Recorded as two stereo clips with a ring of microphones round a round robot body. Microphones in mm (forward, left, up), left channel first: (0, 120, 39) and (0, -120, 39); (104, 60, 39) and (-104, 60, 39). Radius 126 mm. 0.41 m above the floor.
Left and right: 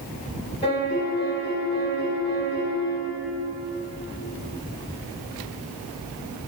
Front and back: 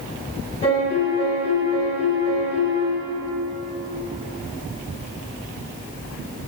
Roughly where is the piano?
Ahead left.